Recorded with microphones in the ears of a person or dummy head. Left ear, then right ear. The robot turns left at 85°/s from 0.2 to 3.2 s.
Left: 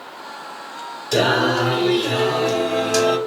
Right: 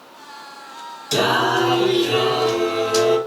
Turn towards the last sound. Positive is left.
turn(degrees=105)